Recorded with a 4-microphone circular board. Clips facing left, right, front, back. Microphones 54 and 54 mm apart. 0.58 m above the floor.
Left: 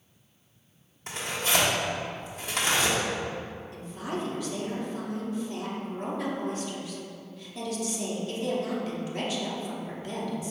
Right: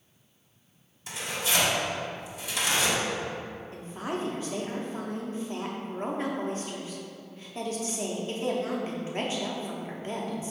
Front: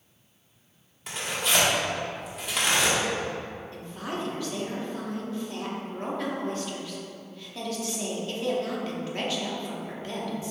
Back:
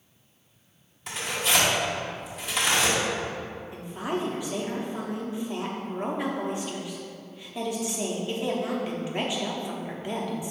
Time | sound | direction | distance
1.1 | tearing paper | 90° left | 1.2 m
3.7 | a woman speaking | 120° right | 0.7 m